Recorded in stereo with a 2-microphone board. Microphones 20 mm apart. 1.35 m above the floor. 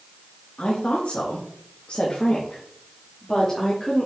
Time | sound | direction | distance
0.6 | a woman speaking | 80° left | 2.5 m